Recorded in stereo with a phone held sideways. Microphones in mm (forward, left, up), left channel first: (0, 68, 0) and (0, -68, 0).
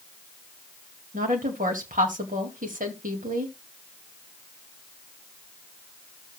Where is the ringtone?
I don't hear a ringtone.